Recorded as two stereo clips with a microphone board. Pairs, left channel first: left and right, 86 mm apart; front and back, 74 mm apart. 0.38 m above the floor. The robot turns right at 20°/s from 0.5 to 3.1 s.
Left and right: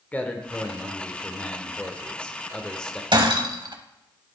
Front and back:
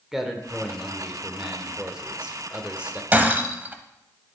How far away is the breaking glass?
About 0.7 m.